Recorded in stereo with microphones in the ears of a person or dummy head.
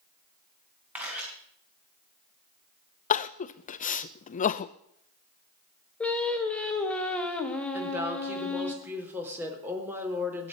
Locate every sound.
0.9 s a camera shutter: 15° right (ahead or behind), 4.5 m
3.1 s crying: 30° left (ahead or behind), 0.6 m
6.0 s singing: centre (ahead or behind), 1.6 m
7.7 s a woman speaking: 5° right (ahead or behind), 3.5 m